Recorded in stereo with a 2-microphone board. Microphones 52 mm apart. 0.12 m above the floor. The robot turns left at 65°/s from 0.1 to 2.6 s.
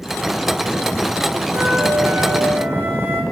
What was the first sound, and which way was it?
A flute, 60° right.